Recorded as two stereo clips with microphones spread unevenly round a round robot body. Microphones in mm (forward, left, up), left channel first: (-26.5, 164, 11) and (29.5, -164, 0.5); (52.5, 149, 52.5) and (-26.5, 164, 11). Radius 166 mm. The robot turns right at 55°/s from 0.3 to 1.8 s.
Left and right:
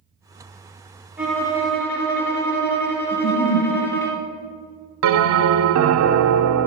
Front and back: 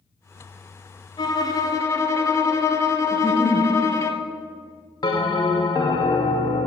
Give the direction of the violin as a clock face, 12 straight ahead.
12 o'clock.